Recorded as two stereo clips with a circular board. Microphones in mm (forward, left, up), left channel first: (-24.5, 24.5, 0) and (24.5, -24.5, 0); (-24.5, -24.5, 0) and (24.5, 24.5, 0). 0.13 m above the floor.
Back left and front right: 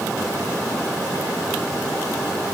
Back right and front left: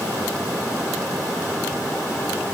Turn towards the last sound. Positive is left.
No sound to turn to.